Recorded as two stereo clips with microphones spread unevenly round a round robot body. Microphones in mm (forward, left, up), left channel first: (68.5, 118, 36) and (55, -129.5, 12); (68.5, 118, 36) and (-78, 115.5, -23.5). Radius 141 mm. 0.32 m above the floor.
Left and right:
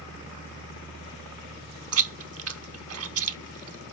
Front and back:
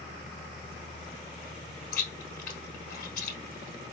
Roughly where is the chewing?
Ahead right.